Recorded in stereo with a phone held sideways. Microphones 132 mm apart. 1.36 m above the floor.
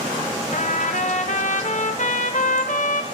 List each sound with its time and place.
0.5 s a trumpet: 70° left (ahead or behind), 0.8 m